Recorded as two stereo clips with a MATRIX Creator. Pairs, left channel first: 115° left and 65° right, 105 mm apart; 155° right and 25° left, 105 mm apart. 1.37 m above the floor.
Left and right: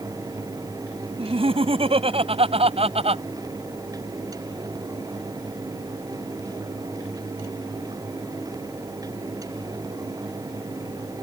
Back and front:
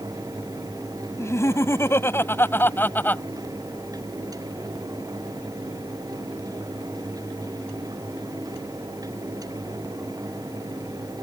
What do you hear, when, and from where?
1.2 s laughter: 95° right; by 3.2 s 85° right